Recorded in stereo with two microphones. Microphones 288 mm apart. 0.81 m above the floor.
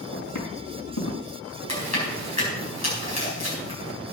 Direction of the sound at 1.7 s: 65° left (ahead or behind).